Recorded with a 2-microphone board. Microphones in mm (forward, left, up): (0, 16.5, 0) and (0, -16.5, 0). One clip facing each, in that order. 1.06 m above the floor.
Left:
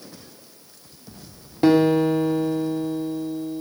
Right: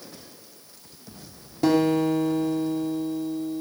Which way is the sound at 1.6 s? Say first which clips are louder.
Left 4 dB; 30° left (ahead or behind).